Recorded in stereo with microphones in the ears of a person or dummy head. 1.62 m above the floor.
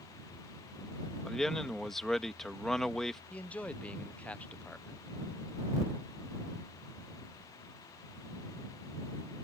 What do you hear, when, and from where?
1.2 s a man speaking: centre (ahead or behind)
3.3 s a man speaking: 5° left (ahead or behind)